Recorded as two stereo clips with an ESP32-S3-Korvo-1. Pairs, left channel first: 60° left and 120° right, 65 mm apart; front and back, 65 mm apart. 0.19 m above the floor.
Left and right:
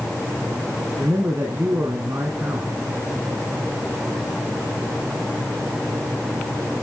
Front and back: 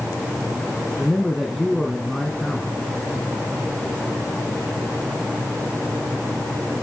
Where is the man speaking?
90° right, 1.6 m.